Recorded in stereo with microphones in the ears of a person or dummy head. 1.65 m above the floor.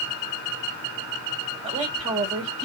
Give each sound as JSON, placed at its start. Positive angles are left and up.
{"t": 1.6, "sound": "a woman speaking", "side_deg": -30, "distance_m": 2.0}